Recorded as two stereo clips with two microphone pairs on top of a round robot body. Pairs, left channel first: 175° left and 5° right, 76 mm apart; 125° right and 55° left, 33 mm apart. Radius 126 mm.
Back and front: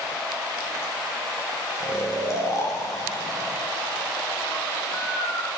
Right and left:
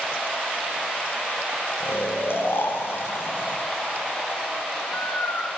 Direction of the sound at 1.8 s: 145° right.